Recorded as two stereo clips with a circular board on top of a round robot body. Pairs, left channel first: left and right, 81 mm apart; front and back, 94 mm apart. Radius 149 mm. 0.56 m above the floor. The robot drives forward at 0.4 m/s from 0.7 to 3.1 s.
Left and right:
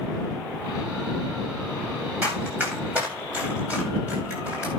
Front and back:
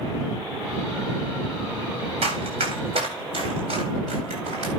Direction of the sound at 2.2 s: 160° right.